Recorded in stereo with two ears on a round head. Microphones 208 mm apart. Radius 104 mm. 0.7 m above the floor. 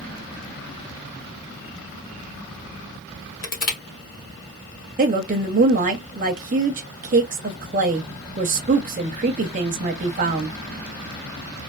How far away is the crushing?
About 0.9 m.